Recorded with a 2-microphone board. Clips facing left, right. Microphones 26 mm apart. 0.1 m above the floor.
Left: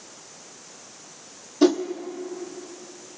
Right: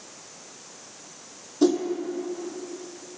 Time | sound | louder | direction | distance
1.6 | a whoosh | left 2 dB | 25° left (ahead or behind) | 0.8 m